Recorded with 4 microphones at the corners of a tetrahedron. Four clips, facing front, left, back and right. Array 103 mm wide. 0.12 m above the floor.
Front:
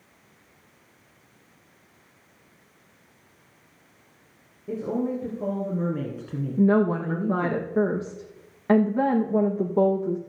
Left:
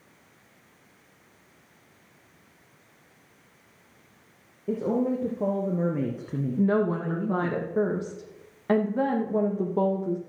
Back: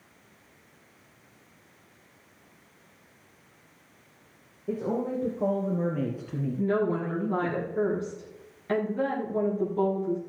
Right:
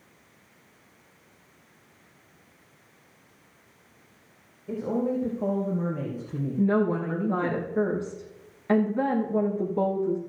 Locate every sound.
4.7 s a woman speaking: 95° left, 4 m; by 7.6 s 5° right, 1.8 m
6.6 s a woman speaking: 35° left, 5 m